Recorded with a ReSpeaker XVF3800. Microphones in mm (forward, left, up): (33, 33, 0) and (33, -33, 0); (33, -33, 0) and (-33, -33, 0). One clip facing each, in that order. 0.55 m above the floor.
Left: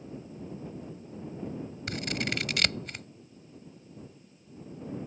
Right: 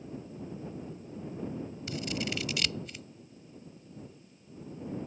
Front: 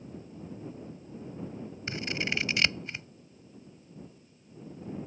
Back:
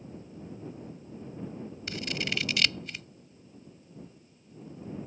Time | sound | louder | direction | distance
1.9 | scissors | left 2 dB, front 1 dB | 60° left | ?